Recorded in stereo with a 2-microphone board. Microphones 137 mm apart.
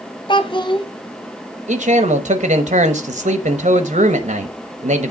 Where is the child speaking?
35° left (ahead or behind), 0.7 m.